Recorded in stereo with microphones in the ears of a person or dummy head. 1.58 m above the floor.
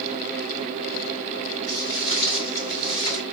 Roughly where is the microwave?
I don't hear a microwave.